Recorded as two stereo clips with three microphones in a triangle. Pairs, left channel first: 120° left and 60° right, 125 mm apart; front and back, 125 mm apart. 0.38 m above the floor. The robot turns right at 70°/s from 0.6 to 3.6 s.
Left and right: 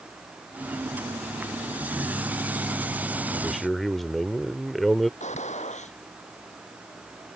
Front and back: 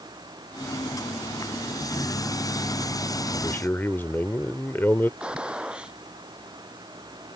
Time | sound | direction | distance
3.3 | a man speaking | 15° left | ?
5.2 | a gunshot | 100° left | ?